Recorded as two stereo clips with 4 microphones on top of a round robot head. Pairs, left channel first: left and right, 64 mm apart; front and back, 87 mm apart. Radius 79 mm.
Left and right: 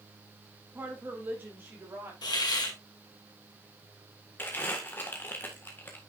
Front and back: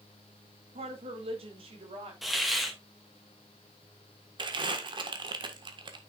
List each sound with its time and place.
0.8 s a woman speaking: 165° right, 1.5 m; by 2.1 s 155° right, 3.5 m
2.2 s a hiss: 95° left, 2.5 m
4.4 s crumpling: 155° left, 1.7 m